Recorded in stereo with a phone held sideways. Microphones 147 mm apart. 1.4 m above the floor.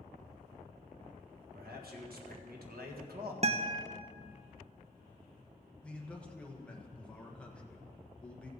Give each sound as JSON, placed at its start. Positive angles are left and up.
{"t": 1.6, "sound": "a man speaking", "side_deg": -75, "distance_m": 1.6}
{"t": 3.4, "sound": "a guitar", "side_deg": -45, "distance_m": 0.5}
{"t": 5.8, "sound": "a man speaking", "side_deg": 5, "distance_m": 1.2}